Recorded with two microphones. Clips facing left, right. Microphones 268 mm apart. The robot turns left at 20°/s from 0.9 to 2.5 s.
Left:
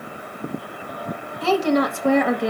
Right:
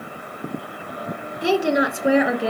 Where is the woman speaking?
15° right (ahead or behind), 1.2 m; by 2.5 s 5° right (ahead or behind), 1.2 m.